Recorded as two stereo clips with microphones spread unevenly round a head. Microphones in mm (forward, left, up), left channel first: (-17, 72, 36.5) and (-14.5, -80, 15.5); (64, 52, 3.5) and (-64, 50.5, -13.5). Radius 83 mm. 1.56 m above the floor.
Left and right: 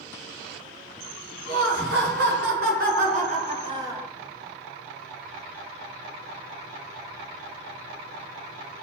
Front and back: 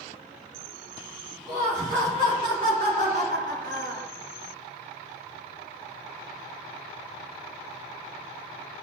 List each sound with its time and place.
1.5 s laughter: 105° right, 2 m; by 4.1 s 170° right, 0.9 m